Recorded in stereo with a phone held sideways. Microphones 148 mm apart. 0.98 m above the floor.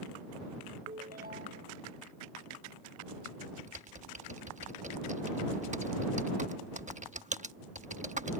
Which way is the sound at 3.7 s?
55° right (ahead or behind).